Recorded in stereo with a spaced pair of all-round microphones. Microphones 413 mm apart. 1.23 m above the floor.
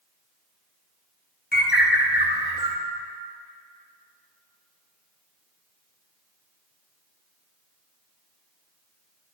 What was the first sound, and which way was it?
A bird, 25° left (ahead or behind).